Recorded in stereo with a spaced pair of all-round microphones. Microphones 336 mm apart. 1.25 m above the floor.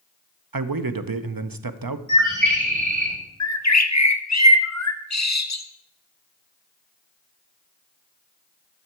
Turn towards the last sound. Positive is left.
turn(degrees=50)  # may be behind; listen again after turning